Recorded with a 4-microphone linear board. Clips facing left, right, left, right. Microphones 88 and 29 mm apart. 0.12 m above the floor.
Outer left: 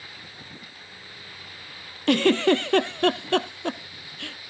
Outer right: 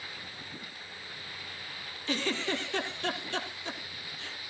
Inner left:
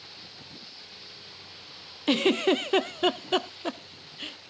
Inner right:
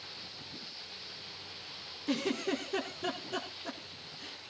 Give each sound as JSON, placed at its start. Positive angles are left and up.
{"t": 2.1, "sound": "a giggle", "side_deg": 70, "distance_m": 0.7}